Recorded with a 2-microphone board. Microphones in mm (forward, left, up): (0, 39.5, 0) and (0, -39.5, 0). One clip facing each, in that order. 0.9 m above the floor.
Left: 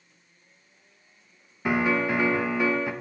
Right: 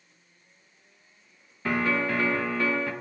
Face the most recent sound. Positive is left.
turn(degrees=15)  # may be behind; listen again after turning